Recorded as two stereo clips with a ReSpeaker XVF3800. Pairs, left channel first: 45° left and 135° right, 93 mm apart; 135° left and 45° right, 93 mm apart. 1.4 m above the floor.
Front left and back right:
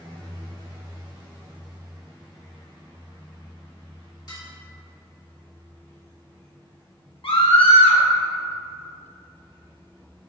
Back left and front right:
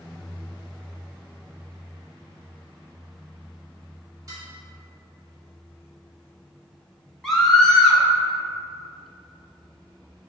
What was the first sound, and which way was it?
Dishes clattering, 5° left.